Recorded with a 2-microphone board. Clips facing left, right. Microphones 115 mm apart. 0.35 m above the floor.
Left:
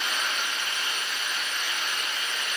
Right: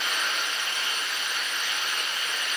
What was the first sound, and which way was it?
Running water, 20° right (ahead or behind).